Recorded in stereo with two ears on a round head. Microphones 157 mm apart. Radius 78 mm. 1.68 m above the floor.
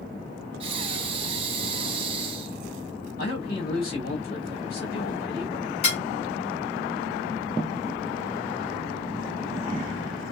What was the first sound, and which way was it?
Breathing, 30° right (ahead or behind).